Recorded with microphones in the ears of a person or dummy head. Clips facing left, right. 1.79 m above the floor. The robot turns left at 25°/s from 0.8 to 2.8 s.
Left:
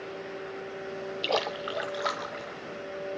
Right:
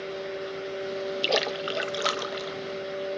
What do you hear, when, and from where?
1.2 s a splash: 15° right, 0.5 m; by 2.6 s 50° right, 0.5 m